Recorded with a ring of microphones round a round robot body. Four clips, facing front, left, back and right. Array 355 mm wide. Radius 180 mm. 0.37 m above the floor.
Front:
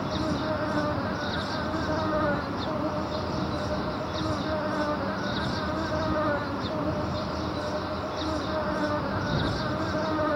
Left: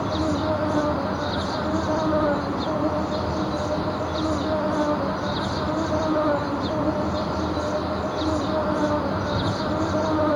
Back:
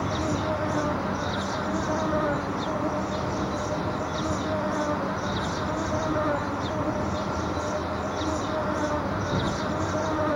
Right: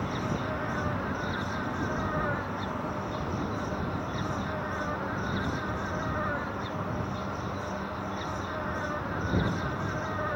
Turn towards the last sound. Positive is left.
turn(degrees=85)